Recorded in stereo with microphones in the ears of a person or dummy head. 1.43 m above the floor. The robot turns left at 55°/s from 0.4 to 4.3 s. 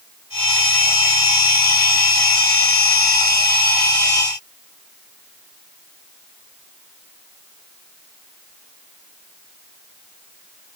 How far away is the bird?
I don't hear a bird.